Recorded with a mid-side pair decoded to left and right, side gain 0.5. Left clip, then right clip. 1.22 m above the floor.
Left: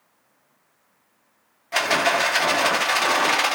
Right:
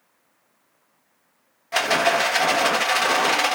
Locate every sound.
1.7 s a rattle: straight ahead, 1.0 m